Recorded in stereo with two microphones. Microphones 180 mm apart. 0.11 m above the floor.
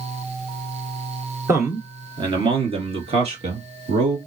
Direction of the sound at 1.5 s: 15° right (ahead or behind).